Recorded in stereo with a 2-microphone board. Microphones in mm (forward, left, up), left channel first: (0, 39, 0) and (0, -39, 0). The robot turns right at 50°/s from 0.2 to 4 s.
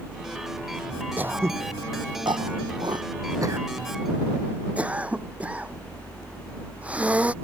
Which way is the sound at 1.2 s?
20° right (ahead or behind).